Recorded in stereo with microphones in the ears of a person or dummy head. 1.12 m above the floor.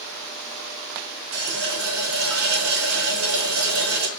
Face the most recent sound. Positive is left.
turn(degrees=-75)  # may be behind; listen again after turning